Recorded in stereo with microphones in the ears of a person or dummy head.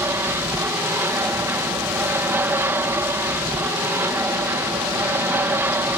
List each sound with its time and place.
0.0 s an aircraft: 10° right (ahead or behind)